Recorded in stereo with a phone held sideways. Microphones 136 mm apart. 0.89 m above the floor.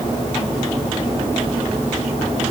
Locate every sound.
Only background noise.